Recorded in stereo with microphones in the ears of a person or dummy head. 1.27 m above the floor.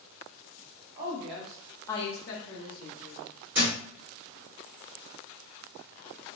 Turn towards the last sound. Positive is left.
turn(degrees=-5)  # may be behind; listen again after turning